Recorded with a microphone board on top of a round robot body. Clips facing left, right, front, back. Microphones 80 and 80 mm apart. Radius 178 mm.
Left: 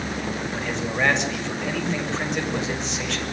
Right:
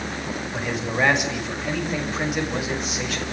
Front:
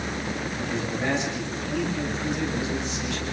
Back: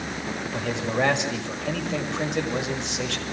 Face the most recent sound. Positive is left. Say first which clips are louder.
# right 3 dB, back 3 dB
turn(degrees=-175)